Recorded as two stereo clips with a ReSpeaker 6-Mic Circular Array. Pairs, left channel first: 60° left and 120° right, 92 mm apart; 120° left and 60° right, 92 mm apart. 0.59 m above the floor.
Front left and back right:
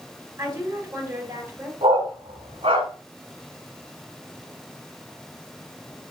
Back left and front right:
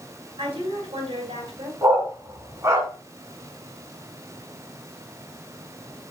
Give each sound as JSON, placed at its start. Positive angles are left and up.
{"t": 0.4, "sound": "a woman speaking", "azimuth_deg": -70, "distance_m": 4.5}
{"t": 1.8, "sound": "a dog barking", "azimuth_deg": -120, "distance_m": 2.0}